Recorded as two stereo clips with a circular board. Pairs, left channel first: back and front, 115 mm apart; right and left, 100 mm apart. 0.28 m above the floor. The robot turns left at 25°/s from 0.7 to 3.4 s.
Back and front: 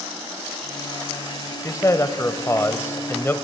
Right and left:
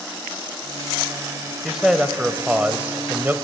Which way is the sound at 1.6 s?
175° left.